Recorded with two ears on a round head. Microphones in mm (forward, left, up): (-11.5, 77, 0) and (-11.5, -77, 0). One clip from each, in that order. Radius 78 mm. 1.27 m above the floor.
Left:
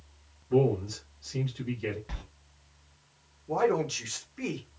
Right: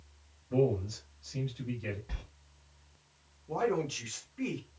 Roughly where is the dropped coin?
No dropped coin in this recording.